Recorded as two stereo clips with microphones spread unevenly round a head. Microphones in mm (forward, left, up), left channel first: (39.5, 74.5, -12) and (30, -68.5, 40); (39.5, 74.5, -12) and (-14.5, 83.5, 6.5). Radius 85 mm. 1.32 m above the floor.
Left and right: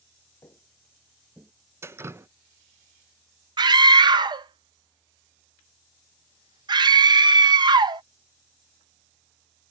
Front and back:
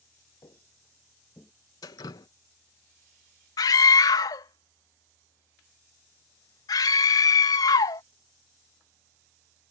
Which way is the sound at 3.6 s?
35° right.